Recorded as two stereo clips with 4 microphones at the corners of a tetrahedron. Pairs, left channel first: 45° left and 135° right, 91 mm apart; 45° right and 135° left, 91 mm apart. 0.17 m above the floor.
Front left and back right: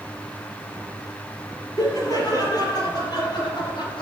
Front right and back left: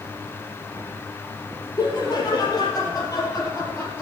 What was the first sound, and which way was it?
Laughter, straight ahead.